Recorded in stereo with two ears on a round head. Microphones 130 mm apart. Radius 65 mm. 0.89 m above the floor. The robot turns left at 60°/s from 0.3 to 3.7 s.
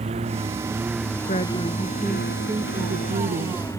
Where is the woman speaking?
50° left; by 3.6 s 90° right.